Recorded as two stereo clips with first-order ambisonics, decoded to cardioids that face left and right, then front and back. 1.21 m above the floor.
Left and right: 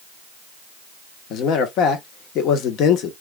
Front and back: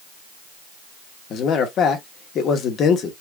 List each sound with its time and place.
1.3 s a man speaking: 50° left, 1.0 m